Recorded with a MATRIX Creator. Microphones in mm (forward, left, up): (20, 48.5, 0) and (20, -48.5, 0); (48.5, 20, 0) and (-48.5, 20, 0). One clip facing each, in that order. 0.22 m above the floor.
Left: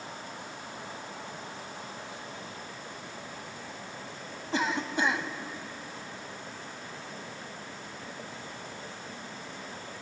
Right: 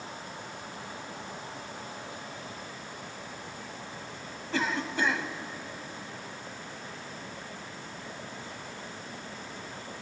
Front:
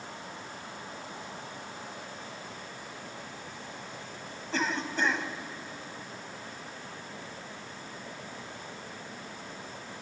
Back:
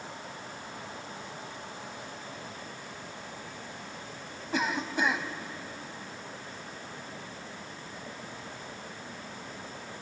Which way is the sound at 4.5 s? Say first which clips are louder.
Left 1 dB, back 1 dB; 120° left.